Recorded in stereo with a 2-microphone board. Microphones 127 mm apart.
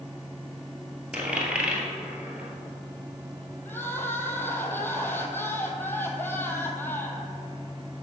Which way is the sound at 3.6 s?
15° left (ahead or behind).